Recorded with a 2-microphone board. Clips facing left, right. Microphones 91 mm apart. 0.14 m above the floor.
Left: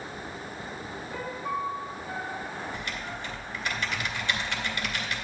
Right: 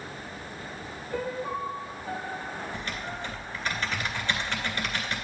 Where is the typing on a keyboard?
40° right (ahead or behind), 2.0 m.